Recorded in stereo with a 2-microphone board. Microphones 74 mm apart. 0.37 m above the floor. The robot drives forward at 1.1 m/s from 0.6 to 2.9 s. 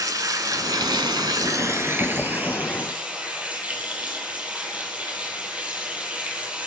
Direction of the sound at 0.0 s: 55° right (ahead or behind).